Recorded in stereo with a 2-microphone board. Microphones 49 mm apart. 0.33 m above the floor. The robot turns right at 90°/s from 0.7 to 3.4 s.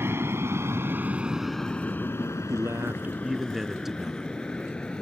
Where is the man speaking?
85° right; by 4.3 s 5° right.